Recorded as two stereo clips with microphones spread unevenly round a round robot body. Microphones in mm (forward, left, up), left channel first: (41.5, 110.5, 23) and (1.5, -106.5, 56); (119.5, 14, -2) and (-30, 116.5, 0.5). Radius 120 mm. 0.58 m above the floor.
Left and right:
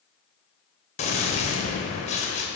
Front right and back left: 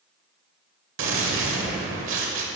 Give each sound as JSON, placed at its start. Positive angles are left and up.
{"t": 1.0, "sound": "a gunshot", "azimuth_deg": 140, "distance_m": 1.2}